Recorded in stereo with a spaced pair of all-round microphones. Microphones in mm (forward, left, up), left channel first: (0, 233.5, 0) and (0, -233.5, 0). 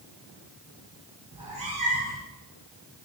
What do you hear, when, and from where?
1.3 s a cat meowing: 45° right (ahead or behind), 4 m